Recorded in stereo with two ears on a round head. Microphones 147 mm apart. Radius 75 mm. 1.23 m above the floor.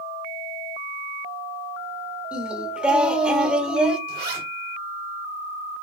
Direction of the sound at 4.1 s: 65° right (ahead or behind).